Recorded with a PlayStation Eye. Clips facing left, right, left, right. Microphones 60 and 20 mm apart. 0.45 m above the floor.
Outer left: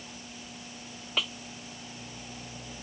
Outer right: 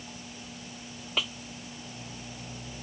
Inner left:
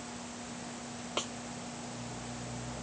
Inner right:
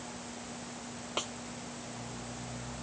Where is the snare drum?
Centre (ahead or behind).